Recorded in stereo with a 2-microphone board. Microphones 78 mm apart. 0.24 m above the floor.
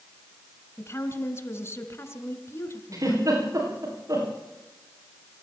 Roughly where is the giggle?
Right.